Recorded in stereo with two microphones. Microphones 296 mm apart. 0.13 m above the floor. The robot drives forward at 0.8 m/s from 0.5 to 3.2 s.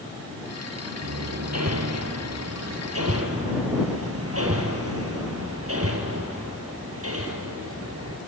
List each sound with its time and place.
1.0 s hammering: 60° right (ahead or behind), 2.5 m; by 8.2 s 50° right (ahead or behind), 3 m